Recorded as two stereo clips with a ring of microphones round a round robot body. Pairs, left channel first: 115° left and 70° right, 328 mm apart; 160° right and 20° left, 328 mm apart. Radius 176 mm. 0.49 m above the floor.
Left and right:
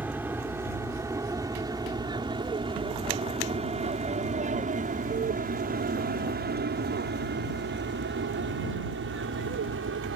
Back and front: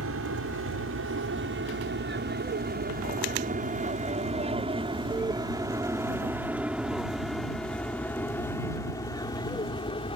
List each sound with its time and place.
0.0 s an aircraft: 15° left; by 10.2 s 90° right